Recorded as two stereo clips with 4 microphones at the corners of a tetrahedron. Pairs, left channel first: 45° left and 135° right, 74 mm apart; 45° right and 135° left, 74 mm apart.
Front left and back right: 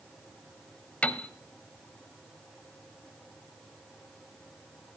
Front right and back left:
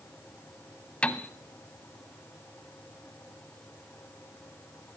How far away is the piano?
About 0.6 m.